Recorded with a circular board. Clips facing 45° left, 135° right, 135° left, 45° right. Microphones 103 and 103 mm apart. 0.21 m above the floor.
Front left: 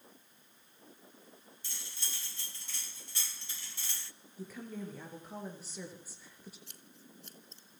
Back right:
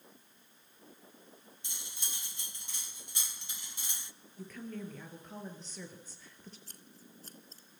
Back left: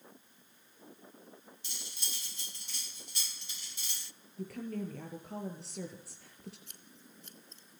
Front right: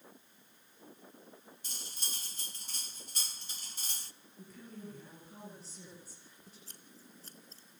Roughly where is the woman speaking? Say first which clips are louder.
Even, back left 11 dB; behind left.